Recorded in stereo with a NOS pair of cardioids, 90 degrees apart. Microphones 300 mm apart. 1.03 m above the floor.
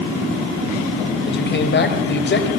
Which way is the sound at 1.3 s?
35° left.